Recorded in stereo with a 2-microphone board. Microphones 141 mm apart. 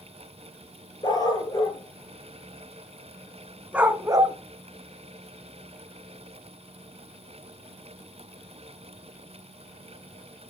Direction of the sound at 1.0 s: 30° left (ahead or behind).